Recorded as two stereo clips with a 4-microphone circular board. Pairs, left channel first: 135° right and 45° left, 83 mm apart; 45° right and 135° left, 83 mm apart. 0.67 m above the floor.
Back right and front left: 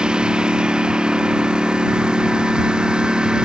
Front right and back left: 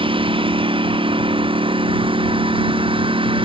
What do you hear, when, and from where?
0.0 s a lawn mower: 125° left